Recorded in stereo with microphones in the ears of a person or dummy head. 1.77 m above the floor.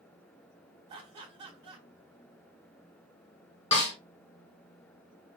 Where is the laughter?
35° right (ahead or behind), 1.2 m.